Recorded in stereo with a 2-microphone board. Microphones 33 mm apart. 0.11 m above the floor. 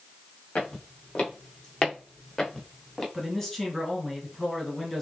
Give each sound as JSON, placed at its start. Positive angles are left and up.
{"t": 0.6, "sound": "footsteps", "side_deg": 40, "distance_m": 2.5}
{"t": 3.1, "sound": "a man speaking", "side_deg": 10, "distance_m": 1.5}